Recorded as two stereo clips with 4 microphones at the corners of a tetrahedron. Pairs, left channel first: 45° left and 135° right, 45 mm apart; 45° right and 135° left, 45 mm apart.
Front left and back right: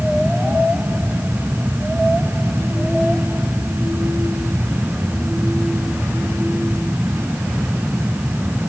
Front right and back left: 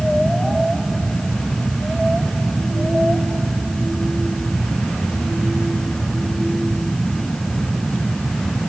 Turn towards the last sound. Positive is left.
No sound to turn to.